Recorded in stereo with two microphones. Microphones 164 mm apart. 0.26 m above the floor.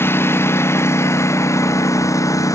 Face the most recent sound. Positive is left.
turn(degrees=20)  # may be behind; listen again after turning